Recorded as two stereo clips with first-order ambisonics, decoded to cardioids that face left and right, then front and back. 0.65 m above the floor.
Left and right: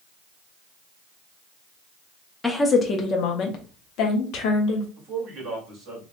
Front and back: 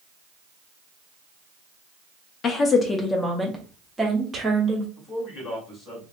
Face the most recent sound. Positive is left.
turn(degrees=-50)